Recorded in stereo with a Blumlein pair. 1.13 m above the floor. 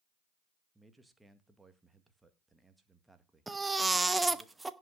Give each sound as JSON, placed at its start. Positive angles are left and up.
{"t": 0.8, "sound": "a man speaking", "azimuth_deg": -5, "distance_m": 1.8}
{"t": 3.5, "sound": "a baby crying", "azimuth_deg": -10, "distance_m": 0.9}